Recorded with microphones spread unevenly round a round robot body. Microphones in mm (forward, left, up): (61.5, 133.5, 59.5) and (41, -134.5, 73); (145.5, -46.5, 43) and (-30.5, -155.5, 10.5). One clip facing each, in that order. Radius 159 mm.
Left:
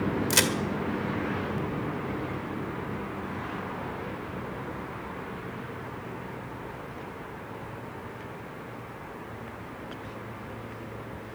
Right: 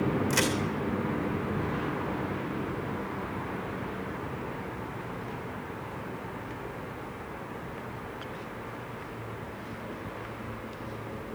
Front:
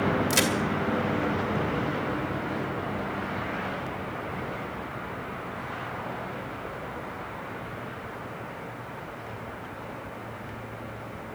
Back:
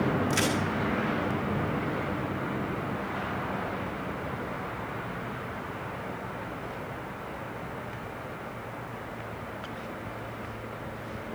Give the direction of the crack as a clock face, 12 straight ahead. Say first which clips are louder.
Even, front 2 dB; 9 o'clock.